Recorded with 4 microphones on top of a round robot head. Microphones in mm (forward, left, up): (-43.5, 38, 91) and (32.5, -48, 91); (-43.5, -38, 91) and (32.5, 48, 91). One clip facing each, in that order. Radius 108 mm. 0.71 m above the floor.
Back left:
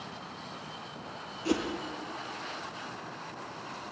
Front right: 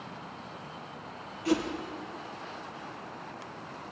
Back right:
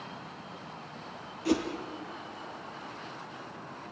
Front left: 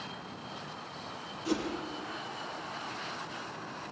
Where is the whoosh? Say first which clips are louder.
Front right 2 dB, back right 4 dB; 165° right, 3 m.